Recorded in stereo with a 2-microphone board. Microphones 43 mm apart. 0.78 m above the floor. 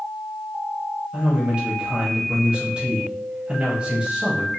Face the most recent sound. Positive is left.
turn(degrees=-30)  # may be behind; listen again after turning